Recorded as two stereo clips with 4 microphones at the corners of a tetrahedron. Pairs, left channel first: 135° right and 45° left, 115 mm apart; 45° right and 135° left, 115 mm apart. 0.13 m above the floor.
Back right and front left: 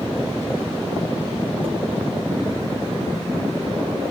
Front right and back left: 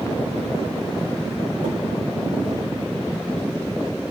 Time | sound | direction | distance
1.6 | dishes clattering | 120° left | 5.5 m